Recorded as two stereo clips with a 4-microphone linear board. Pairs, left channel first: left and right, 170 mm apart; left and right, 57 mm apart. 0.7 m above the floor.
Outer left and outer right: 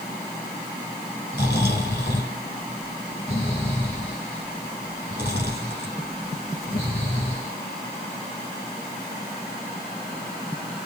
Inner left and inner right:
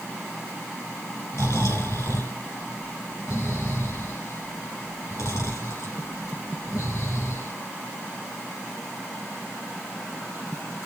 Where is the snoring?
80° left, 3 m.